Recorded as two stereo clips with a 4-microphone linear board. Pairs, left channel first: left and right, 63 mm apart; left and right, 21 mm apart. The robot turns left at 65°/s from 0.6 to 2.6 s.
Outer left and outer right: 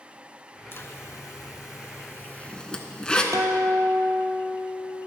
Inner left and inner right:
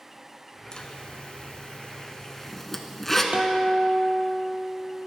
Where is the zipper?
35° left (ahead or behind), 0.6 m; by 3.2 s 15° left (ahead or behind), 0.6 m.